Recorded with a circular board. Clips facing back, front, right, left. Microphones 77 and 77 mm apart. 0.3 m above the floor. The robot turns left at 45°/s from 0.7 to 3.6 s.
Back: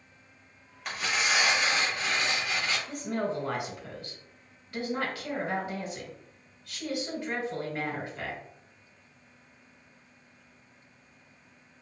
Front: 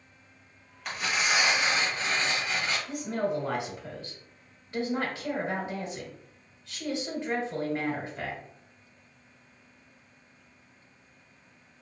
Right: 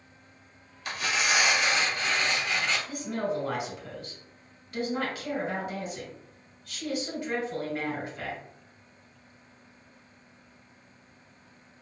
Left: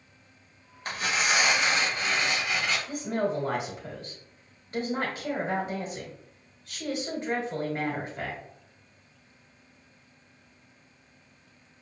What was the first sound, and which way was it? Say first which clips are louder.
Tearing paper: front 1 dB, left 1 dB; 95° left.